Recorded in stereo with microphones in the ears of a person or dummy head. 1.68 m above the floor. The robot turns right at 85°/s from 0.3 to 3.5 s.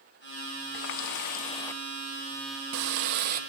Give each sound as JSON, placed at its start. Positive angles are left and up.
{"t": 0.7, "sound": "a running tap", "azimuth_deg": 90, "distance_m": 1.5}